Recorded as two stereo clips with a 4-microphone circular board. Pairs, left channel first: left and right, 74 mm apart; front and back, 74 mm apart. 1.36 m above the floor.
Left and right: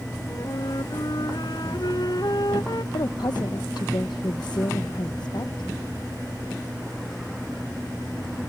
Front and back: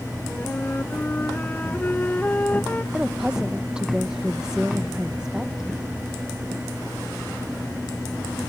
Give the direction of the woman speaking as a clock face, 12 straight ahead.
9 o'clock.